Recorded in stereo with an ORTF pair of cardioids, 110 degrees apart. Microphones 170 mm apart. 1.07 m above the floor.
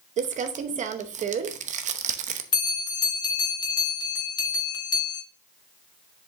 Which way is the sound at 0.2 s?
50° right.